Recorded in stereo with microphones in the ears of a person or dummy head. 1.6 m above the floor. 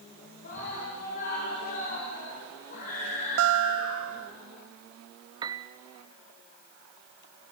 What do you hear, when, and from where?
0.4 s a scream: 55° left (ahead or behind), 7 m
3.4 s a guitar: 70° right (ahead or behind), 0.6 m
5.4 s a piano: 20° right (ahead or behind), 0.8 m